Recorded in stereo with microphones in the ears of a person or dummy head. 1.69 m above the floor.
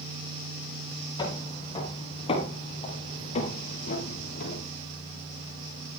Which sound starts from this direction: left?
Footsteps, at 1.2 s.